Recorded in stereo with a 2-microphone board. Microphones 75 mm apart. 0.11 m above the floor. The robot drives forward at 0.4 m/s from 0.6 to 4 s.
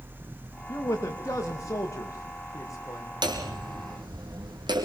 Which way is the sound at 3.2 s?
75° right (ahead or behind).